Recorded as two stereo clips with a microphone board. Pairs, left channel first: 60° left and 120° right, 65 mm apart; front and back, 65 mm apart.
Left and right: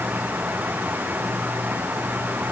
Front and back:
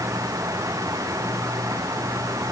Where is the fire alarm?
I don't hear a fire alarm.